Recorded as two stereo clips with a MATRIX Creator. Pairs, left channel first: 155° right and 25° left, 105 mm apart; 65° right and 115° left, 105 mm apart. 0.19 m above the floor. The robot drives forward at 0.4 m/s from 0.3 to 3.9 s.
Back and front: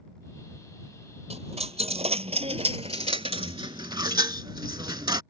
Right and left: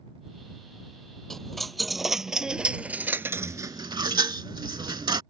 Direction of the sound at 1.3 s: 20° left.